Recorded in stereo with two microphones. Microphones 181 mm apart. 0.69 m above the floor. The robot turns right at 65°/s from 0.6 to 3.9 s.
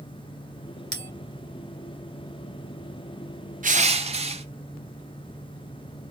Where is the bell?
80° right, 1.5 m; by 1.1 s 75° right (ahead or behind), 1.5 m.